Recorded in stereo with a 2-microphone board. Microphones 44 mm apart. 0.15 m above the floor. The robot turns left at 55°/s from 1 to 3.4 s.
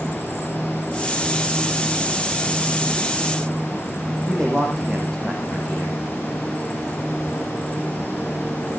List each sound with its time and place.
4.3 s a man speaking: 15° left (ahead or behind), 7.5 m